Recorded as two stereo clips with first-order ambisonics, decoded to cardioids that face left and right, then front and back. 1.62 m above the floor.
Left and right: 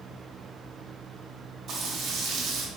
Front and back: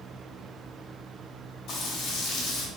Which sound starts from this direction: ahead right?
Frying, at 1.7 s.